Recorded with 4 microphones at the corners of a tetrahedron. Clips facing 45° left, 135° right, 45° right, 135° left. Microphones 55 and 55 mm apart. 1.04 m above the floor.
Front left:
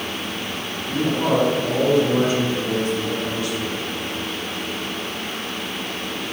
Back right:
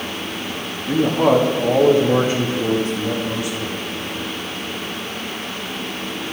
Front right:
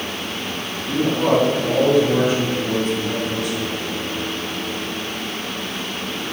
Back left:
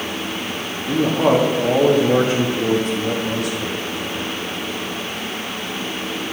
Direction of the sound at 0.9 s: 165° right.